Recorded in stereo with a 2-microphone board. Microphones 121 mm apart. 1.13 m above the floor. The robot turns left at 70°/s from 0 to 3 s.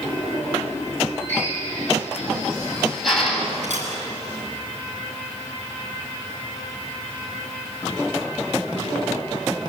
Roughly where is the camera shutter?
Right.